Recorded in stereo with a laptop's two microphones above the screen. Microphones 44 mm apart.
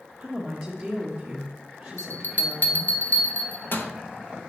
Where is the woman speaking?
15° right (ahead or behind), 1.3 m.